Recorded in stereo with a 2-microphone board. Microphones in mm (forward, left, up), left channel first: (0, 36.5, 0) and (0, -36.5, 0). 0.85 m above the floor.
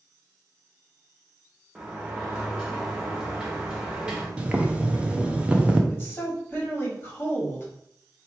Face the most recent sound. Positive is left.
turn(degrees=25)  # may be behind; listen again after turning